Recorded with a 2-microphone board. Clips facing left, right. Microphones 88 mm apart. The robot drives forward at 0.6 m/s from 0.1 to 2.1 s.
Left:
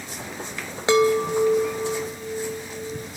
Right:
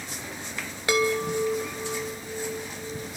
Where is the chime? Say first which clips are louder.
Left 6 dB; 25° left (ahead or behind), 1.3 m; by 3.1 s 15° left (ahead or behind), 2 m.